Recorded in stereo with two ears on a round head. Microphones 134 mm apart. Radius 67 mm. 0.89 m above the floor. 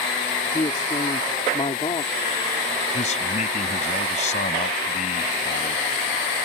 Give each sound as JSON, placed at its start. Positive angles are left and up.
{"t": 0.5, "sound": "a man speaking", "side_deg": 30}
{"t": 2.9, "sound": "a man speaking", "side_deg": 50}